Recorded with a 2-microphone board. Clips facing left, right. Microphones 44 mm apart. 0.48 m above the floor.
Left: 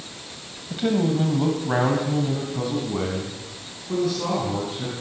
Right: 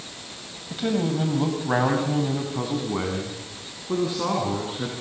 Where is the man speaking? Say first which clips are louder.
Left 3 dB; 5° left (ahead or behind), 3.5 m; by 4.9 s 30° right (ahead or behind), 7.5 m.